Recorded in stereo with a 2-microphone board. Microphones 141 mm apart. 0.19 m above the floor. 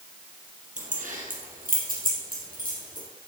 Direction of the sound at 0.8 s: 65° right (ahead or behind).